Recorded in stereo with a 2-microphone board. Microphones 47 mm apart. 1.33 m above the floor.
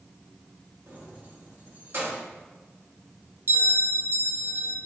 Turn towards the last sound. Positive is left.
turn(degrees=-55)  # may be behind; listen again after turning